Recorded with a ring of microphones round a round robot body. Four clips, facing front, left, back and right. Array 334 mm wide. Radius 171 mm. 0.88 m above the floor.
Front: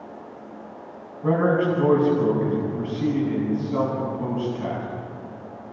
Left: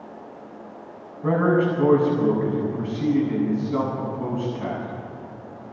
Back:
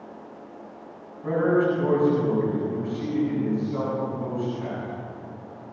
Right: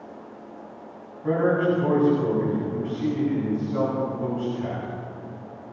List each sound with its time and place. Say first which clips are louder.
1.2 s a man speaking: left 1 dB, front 1 dB; 55° left, 8.5 m